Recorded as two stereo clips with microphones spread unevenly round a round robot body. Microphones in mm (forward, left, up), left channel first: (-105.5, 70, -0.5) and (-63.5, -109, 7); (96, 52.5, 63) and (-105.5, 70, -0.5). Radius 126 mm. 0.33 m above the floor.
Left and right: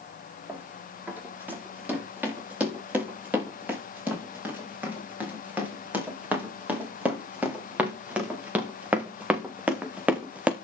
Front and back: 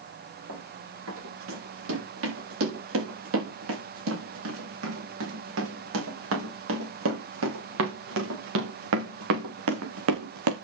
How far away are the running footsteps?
About 9 m.